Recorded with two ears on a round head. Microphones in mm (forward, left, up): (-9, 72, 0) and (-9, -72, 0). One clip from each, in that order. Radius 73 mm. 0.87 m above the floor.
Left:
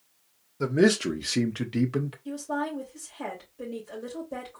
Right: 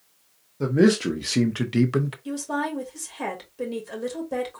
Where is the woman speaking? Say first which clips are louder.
Right 3 dB; 60° right (ahead or behind), 3 m.